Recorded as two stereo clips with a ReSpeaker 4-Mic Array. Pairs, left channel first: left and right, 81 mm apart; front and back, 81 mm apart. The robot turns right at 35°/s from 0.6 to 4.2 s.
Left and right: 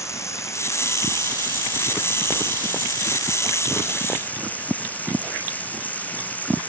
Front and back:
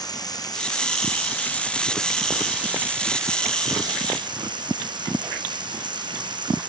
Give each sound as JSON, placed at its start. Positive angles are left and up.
{"t": 0.0, "sound": "running water", "azimuth_deg": 35}